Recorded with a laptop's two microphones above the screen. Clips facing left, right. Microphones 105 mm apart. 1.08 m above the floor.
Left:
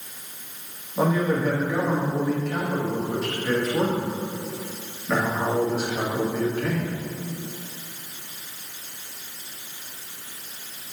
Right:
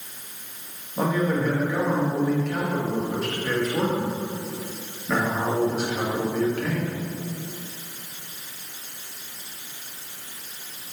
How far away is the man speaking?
About 1.8 m.